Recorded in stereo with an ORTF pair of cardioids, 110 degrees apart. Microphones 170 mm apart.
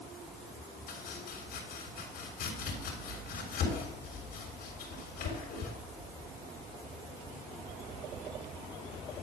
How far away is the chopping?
About 3.5 m.